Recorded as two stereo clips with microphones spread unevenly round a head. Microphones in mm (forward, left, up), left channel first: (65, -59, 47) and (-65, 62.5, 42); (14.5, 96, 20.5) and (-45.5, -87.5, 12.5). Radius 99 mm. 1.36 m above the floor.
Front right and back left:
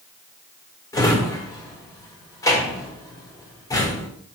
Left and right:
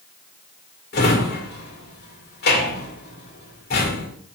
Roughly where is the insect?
I don't hear an insect.